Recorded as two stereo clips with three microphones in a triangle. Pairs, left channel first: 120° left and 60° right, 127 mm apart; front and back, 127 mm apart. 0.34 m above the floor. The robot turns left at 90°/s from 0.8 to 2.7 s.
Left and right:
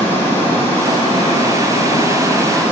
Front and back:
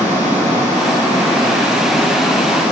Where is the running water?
170° right, 4.5 m; by 2.7 s 20° left, 4.5 m.